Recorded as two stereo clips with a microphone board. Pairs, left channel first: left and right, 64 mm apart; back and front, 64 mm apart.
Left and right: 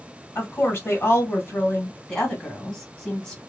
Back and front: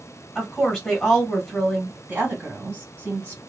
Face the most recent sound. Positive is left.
turn(degrees=25)